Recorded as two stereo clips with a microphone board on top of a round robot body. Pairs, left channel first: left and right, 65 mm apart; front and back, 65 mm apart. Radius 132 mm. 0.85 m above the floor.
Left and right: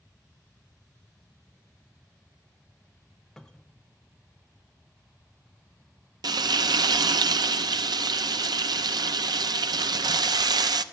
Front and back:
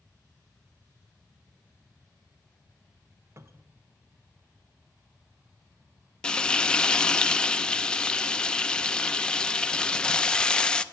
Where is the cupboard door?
170° left, 1.2 m.